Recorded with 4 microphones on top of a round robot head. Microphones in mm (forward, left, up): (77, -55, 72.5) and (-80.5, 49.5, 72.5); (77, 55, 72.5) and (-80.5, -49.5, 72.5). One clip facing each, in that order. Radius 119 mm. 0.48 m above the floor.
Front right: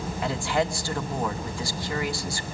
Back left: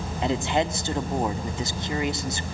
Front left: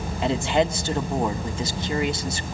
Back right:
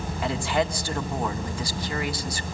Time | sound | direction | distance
0.2 | a man speaking | 90° left | 1.6 m